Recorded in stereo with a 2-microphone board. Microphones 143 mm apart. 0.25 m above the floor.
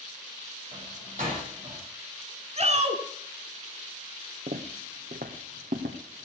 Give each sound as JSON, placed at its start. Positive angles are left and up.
{"t": 0.7, "sound": "a door slam", "side_deg": -60, "distance_m": 8.5}
{"t": 2.6, "sound": "a shout", "side_deg": -50, "distance_m": 2.5}
{"t": 4.5, "sound": "footsteps", "side_deg": -80, "distance_m": 1.7}